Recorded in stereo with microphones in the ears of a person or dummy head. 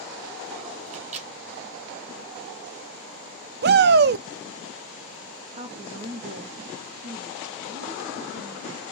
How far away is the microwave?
About 0.8 m.